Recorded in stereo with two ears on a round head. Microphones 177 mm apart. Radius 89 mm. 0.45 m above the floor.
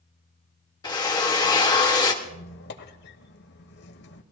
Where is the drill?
20° left (ahead or behind), 1.4 m.